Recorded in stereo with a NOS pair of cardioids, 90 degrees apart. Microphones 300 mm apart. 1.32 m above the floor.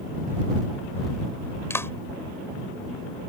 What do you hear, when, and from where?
1.7 s a clap: 5° left